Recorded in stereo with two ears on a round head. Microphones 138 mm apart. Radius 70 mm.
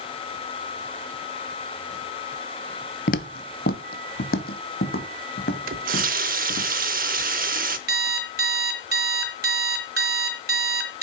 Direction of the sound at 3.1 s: 55° left (ahead or behind).